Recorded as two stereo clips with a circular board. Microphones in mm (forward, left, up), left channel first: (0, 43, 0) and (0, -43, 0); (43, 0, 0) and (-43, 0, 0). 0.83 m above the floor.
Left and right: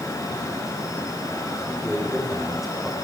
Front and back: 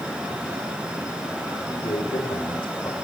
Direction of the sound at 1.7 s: Straight ahead.